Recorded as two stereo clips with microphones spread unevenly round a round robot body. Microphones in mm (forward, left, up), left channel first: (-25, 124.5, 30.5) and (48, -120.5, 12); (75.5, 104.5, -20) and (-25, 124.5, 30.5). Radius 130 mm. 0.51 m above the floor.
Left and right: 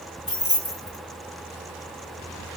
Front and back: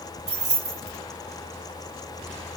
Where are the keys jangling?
Straight behind, 2.5 m.